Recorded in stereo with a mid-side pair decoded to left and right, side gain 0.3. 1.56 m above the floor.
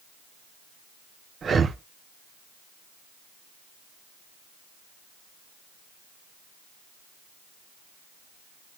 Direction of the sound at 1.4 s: 65° right.